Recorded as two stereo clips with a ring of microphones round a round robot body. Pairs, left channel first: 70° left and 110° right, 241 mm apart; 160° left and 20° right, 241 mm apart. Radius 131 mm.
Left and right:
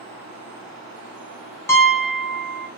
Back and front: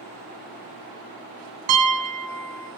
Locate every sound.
1.7 s a piano: 10° right, 0.8 m